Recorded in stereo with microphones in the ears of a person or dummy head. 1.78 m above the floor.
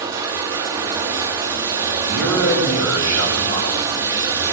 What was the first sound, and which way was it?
Running water, 20° right (ahead or behind).